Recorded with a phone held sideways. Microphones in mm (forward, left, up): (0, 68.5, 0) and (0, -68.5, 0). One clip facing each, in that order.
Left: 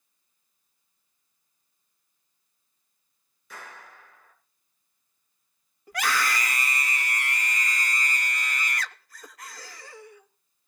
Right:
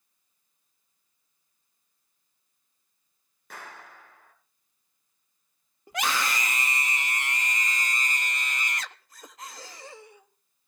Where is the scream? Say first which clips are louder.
Left 1 dB; 20° right (ahead or behind), 1.2 m.